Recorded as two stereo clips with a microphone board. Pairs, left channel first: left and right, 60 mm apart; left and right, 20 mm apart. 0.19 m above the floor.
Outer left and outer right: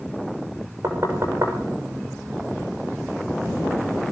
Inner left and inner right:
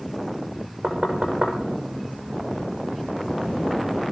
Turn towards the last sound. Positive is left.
turn(degrees=-55)  # may be behind; listen again after turning